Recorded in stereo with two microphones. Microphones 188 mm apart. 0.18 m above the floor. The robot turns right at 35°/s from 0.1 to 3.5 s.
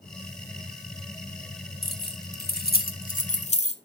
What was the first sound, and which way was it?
Keys jangling, 55° left (ahead or behind).